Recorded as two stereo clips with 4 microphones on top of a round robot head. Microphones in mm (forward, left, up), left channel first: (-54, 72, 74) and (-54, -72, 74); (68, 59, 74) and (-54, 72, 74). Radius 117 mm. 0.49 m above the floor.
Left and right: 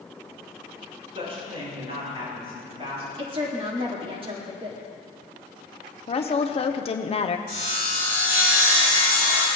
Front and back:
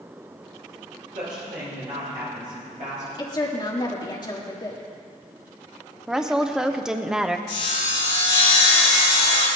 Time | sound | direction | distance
1.1 | a woman speaking | 140° right | 5 m
3.2 | a woman speaking | 50° right | 2.0 m
6.1 | a woman speaking | 90° left | 0.8 m
7.5 | sawing | 40° right | 3 m